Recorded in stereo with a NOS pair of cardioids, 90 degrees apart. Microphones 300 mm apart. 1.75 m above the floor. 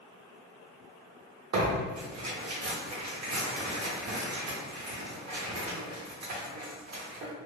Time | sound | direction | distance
1.5 | tearing paper | 60° right | 1.2 m